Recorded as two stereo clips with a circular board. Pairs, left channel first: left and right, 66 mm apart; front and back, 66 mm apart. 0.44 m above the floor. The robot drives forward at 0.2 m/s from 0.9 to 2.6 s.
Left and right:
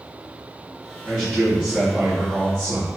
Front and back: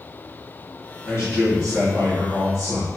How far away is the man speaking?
About 1.9 m.